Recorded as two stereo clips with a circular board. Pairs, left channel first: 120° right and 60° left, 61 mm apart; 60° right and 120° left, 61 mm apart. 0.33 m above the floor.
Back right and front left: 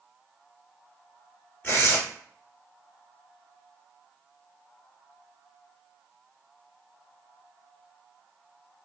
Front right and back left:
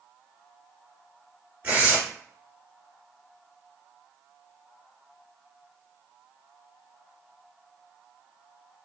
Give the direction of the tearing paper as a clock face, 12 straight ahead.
6 o'clock.